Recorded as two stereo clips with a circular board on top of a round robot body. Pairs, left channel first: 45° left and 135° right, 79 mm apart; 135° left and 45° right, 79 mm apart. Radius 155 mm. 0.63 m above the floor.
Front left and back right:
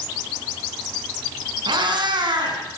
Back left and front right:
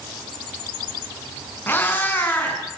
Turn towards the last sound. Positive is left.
turn(degrees=-160)